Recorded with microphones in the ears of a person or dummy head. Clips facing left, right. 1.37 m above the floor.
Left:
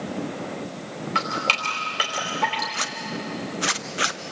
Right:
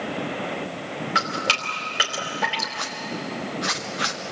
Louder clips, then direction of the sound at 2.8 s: Even; 40° left (ahead or behind).